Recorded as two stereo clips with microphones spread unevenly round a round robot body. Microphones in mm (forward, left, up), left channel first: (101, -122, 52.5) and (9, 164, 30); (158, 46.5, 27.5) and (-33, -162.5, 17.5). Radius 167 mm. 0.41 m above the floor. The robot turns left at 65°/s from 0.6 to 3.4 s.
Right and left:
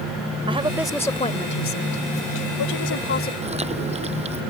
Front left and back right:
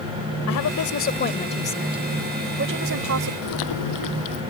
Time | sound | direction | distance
0.5 | a woman speaking | 40° left | ?
3.4 | chewing | 40° left | ?